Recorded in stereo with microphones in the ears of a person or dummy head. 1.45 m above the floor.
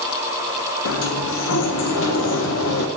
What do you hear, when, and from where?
0.8 s a sliding door: 75° left (ahead or behind), 1.2 m